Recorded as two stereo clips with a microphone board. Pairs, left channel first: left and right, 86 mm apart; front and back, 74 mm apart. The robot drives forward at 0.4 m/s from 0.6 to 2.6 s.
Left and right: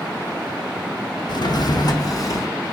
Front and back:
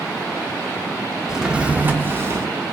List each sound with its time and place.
1.3 s a drawer: 95° left, 0.6 m; by 2.5 s 135° left, 0.8 m